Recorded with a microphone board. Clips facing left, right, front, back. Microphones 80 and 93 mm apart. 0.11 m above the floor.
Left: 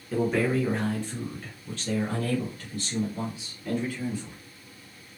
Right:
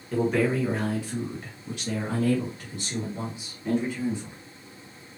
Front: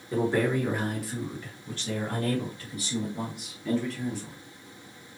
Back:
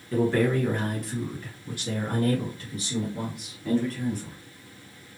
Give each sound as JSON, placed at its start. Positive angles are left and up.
{"t": 0.1, "sound": "a man speaking", "azimuth_deg": 10, "distance_m": 1.6}